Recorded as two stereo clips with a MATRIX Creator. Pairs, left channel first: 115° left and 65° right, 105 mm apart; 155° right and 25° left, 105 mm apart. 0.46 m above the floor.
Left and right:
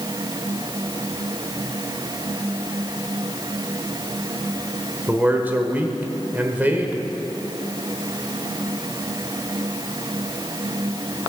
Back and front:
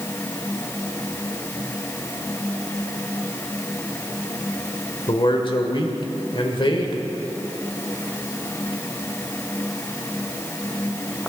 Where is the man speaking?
135° right, 1.2 m.